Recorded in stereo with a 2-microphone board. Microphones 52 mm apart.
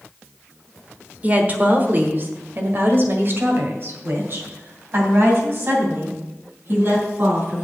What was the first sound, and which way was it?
A woman speaking, 30° right (ahead or behind).